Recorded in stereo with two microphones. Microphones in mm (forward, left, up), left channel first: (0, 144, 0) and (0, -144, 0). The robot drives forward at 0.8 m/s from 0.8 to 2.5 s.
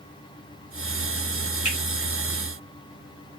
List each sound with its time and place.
1.6 s a finger snap: 80° right, 2.5 m